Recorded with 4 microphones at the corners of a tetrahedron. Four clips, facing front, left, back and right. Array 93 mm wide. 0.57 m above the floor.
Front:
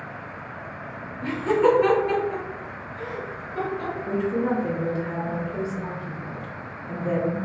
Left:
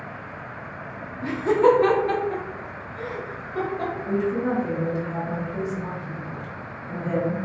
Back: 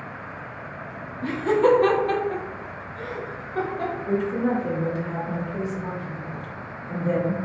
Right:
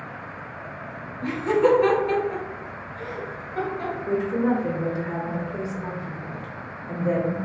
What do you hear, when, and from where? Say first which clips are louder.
1.2 s laughter: left 2 dB, even; 110° left, 0.8 m; by 3.9 s 135° left, 2 m
4.1 s a woman speaking: right 2 dB, even; 50° right, 1.0 m